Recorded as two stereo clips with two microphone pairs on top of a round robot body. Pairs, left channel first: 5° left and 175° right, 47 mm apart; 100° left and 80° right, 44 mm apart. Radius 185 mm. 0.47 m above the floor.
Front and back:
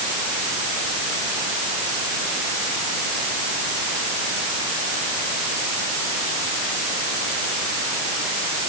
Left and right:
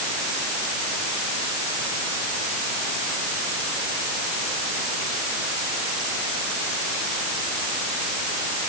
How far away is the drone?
No drone in this recording.